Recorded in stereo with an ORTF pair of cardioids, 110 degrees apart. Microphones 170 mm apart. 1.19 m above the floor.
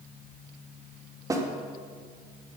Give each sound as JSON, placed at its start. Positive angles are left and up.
{"t": 1.3, "sound": "a snare drum", "azimuth_deg": -20, "distance_m": 3.0}